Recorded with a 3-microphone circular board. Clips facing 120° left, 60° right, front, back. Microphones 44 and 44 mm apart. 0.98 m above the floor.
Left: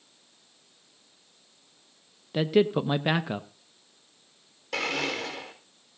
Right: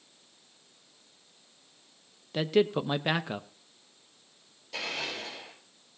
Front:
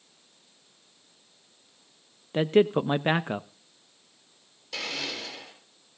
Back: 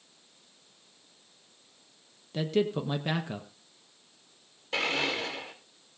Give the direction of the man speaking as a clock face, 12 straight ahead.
11 o'clock.